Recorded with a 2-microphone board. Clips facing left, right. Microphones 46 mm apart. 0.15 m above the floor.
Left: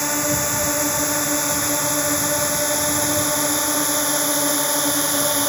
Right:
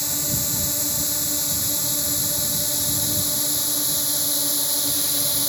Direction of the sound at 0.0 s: 50° left (ahead or behind).